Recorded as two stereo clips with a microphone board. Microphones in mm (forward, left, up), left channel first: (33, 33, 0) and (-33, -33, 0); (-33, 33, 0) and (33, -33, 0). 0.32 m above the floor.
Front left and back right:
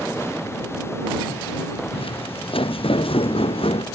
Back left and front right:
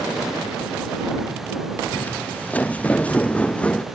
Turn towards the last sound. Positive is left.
turn(degrees=55)